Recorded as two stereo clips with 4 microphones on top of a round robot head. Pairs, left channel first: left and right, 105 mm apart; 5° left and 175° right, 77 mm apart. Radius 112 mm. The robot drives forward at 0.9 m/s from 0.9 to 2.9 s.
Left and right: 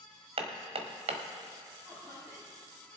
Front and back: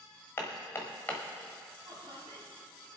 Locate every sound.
0.4 s hammering: 60° right, 1.3 m; by 1.2 s 75° right, 1.1 m
1.9 s laughter: 155° right, 4.5 m